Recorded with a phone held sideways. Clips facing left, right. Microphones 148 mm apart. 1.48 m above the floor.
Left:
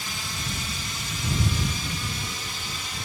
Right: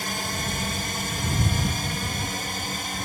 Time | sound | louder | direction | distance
0.0 | a drone | right 6 dB | 60° right (ahead or behind) | ?